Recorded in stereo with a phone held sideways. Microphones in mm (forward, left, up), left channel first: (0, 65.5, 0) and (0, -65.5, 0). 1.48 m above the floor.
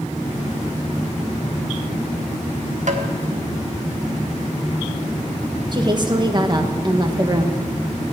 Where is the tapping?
65° right (ahead or behind), 1.6 m.